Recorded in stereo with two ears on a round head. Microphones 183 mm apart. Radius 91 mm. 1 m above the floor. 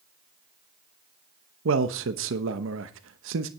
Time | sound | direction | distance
1.6 | a man speaking | 70° right (ahead or behind) | 1.0 m